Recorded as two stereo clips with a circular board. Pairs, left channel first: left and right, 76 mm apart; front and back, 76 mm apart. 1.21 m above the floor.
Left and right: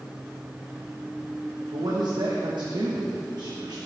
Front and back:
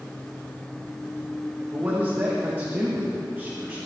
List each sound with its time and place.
1.7 s a man speaking: 115° right, 1.0 m